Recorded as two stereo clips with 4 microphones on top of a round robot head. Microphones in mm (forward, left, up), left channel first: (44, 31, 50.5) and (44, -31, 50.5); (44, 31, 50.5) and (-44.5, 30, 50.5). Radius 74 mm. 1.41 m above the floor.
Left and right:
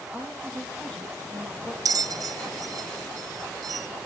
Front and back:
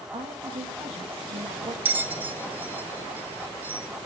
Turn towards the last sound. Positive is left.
turn(degrees=-105)